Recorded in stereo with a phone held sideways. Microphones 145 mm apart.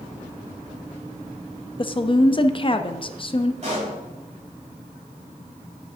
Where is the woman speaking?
35° left (ahead or behind), 0.5 m.